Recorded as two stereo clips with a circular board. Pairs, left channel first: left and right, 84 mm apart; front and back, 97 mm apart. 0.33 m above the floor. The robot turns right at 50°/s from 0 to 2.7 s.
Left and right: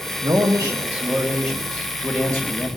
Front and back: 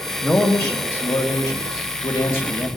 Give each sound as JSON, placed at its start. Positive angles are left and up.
{"t": 0.2, "sound": "a man speaking", "azimuth_deg": -75, "distance_m": 2.0}